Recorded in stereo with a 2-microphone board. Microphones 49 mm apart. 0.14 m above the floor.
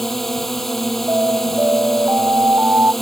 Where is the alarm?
45° right (ahead or behind).